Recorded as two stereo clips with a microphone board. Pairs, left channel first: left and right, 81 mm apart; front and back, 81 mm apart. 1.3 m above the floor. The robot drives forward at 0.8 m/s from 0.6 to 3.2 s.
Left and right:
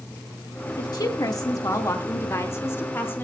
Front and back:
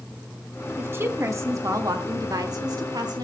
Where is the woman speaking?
115° left, 1.9 m; by 3.2 s 150° left, 3.5 m.